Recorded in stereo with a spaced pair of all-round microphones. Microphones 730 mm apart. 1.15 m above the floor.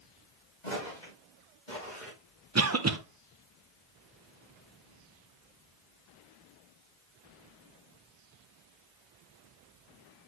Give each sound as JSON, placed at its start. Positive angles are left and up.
{"t": 0.6, "sound": "footsteps", "side_deg": 75, "distance_m": 5.0}
{"t": 2.5, "sound": "a cough", "side_deg": -20, "distance_m": 0.7}